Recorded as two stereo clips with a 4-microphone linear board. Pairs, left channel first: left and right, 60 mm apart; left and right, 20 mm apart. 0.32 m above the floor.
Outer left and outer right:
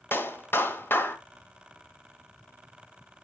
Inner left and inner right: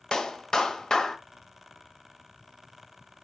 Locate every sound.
0.1 s a clap: 35° left (ahead or behind), 1.3 m